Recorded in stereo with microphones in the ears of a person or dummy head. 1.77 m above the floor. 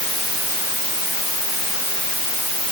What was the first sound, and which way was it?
Only background noise.